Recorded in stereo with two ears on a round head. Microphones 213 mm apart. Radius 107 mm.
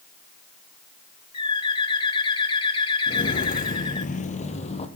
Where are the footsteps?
35° left (ahead or behind), 1.3 m; by 4.9 s 30° left (ahead or behind), 2.5 m.